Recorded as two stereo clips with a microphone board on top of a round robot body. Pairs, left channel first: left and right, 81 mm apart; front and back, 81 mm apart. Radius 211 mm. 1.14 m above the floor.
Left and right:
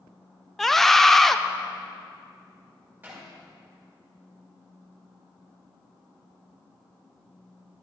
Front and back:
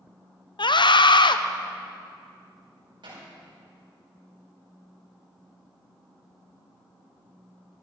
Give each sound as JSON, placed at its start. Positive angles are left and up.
{"t": 0.6, "sound": "a scream", "azimuth_deg": 5, "distance_m": 1.0}
{"t": 3.0, "sound": "hammering", "azimuth_deg": -155, "distance_m": 5.5}